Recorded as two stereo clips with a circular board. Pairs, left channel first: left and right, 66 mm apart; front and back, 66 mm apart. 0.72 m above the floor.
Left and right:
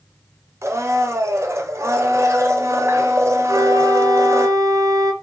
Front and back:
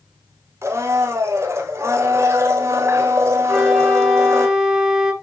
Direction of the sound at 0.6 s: 135° right.